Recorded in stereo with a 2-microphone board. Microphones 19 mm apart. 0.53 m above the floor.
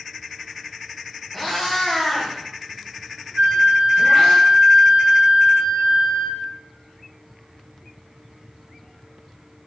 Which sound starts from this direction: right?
A flute, at 3.4 s.